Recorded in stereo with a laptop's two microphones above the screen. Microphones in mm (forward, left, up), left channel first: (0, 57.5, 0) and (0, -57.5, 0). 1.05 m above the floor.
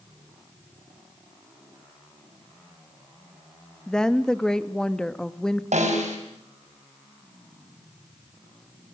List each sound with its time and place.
3.9 s a woman speaking: 5° left (ahead or behind), 1.4 m
5.7 s a snare drum: 80° right, 5 m